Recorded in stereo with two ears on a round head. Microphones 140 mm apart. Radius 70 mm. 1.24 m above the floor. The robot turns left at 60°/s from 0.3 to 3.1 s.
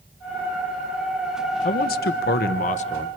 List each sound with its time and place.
1.6 s a man speaking: 120° left, 1.0 m; by 3.1 s 35° left, 1.0 m